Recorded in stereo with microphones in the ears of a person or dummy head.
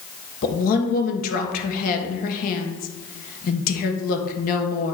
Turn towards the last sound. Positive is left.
turn(degrees=50)  # may be behind; listen again after turning